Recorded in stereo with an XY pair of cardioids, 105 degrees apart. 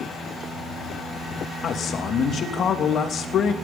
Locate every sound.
1.6 s a man speaking: 50° left, 2.5 m